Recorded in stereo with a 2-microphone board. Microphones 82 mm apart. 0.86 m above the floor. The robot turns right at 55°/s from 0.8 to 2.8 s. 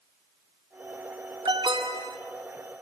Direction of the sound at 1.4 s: 105° right.